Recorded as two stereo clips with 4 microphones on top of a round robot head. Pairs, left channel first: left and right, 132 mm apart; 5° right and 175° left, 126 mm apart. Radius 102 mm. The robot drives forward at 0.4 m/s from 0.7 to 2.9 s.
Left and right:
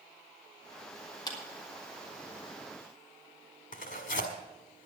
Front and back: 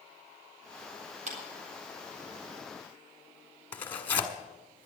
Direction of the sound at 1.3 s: 150° left.